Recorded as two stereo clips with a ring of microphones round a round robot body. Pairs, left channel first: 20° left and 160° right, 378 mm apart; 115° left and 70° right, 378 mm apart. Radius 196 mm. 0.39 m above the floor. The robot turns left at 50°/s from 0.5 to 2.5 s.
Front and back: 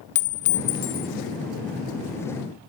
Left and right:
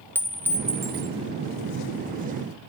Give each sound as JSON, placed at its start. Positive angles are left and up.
{"t": 0.1, "sound": "a clink", "azimuth_deg": 30, "distance_m": 0.9}